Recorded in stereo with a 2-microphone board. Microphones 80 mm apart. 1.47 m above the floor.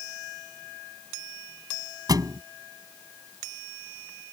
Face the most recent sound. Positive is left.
turn(degrees=-50)  # may be behind; listen again after turning